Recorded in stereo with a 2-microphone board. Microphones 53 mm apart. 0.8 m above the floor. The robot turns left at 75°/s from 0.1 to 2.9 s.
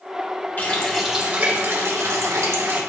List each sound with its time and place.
0.6 s a running tap: 30° left, 1.5 m; by 2.8 s 135° right, 1.5 m